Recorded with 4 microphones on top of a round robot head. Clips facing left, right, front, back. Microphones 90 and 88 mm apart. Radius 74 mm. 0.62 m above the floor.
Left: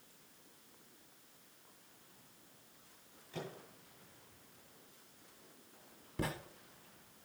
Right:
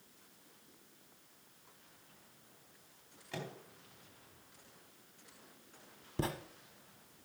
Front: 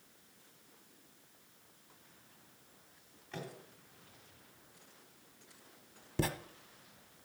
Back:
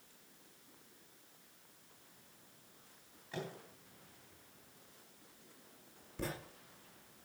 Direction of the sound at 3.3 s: 95° right.